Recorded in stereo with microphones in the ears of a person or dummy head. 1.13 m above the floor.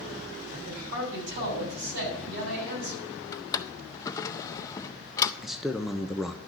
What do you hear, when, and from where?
0.5 s a man speaking: 70° right (ahead or behind), 6 m
3.3 s a drawer: 15° left (ahead or behind), 0.6 m
5.4 s a man speaking: centre (ahead or behind), 0.7 m